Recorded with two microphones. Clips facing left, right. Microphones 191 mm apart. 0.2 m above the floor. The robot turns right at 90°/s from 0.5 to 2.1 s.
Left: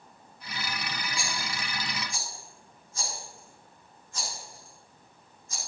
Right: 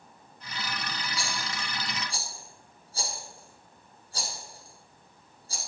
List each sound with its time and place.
1.2 s a rattle: 50° left (ahead or behind), 6.5 m; by 5.6 s 35° right (ahead or behind), 6.5 m